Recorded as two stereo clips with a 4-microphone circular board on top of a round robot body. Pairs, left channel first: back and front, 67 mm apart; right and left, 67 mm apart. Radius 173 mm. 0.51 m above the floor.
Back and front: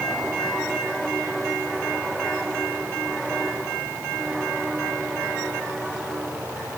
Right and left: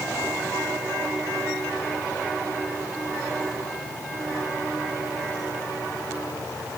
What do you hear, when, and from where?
Only background noise.